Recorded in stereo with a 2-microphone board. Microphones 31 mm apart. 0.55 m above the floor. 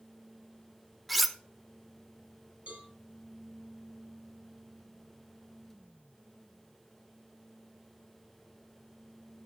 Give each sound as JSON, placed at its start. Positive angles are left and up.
{"t": 1.1, "sound": "cutlery clinking", "side_deg": -5, "distance_m": 0.6}
{"t": 2.7, "sound": "a cowbell", "side_deg": -55, "distance_m": 5.0}